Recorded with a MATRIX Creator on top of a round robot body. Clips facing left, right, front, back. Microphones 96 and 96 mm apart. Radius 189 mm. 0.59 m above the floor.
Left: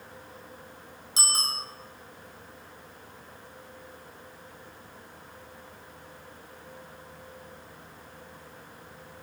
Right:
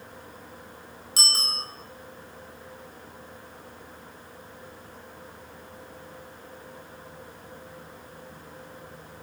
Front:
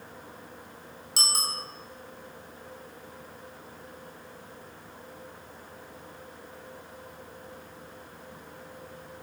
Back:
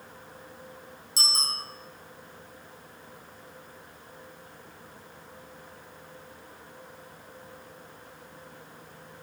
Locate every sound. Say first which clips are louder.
1.2 s a bicycle bell: left 1 dB, front 1 dB; 20° left, 3.5 m